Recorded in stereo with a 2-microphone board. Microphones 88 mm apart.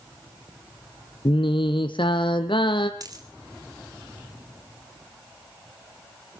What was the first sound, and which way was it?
Singing, 70° left (ahead or behind).